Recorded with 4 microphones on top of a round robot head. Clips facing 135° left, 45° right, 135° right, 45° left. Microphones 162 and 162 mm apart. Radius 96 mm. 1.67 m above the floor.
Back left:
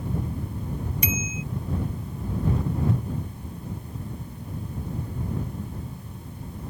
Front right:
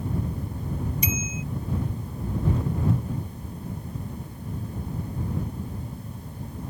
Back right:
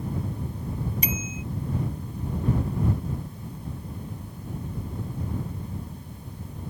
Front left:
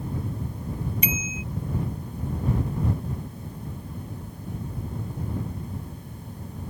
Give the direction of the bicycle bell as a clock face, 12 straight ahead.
6 o'clock.